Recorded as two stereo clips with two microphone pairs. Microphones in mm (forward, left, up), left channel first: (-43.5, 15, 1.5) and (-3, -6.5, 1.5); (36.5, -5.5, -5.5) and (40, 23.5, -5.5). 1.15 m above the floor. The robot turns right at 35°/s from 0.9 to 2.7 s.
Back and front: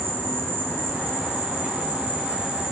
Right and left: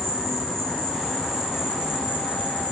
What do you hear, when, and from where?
0.0 s an insect: 20° right, 3.5 m; by 2.7 s 45° left, 3.5 m